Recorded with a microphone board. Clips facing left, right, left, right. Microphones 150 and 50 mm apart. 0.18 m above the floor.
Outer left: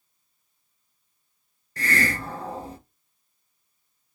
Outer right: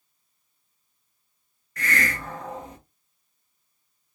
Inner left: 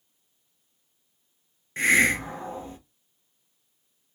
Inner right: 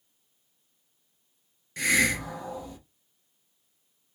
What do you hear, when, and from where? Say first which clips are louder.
1.8 s a hiss: outer left 2 dB, inner left 4 dB; 35° left (ahead or behind), 0.7 m